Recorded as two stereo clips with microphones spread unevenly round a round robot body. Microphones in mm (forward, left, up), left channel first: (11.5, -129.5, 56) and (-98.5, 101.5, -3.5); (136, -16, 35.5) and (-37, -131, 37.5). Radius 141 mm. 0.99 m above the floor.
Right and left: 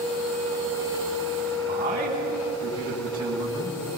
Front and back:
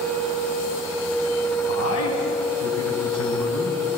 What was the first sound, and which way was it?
A man speaking, 40° left.